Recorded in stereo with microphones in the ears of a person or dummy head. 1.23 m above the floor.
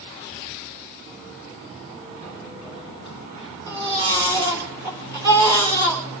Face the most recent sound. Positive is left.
turn(degrees=-20)  # may be behind; listen again after turning